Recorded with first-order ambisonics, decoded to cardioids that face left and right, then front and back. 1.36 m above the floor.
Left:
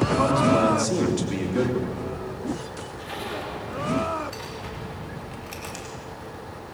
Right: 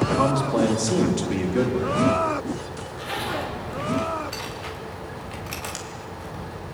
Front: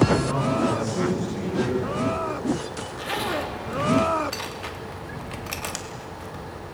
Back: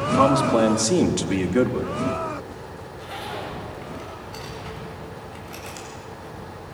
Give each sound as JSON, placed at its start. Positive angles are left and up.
{"t": 0.1, "sound": "a man speaking", "azimuth_deg": -175, "distance_m": 2.5}
{"t": 2.8, "sound": "a zipper", "azimuth_deg": -20, "distance_m": 3.0}